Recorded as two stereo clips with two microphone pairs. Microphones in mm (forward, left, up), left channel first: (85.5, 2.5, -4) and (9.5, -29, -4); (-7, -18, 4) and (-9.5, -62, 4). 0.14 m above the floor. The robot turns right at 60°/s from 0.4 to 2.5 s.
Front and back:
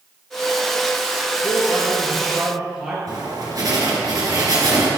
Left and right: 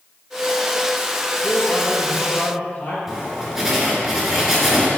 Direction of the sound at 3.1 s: 170° right.